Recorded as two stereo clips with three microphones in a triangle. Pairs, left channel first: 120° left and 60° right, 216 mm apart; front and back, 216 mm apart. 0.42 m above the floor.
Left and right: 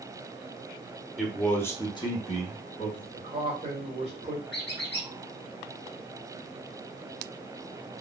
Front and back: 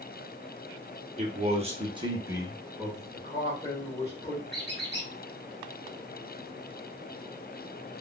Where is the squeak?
145° left, 1.5 m.